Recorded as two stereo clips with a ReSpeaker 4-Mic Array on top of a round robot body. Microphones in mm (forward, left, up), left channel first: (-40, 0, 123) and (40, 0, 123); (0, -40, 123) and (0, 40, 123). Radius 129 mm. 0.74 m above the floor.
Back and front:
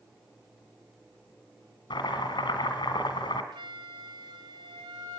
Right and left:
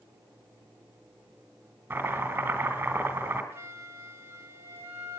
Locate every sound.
1.9 s chopping: 150° left, 2.5 m
3.5 s a flute: 30° left, 3 m